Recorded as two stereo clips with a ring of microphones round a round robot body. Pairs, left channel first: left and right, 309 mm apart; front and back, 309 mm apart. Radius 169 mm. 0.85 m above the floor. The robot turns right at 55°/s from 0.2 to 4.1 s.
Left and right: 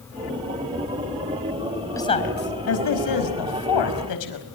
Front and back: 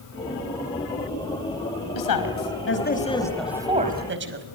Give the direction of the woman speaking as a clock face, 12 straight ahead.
12 o'clock.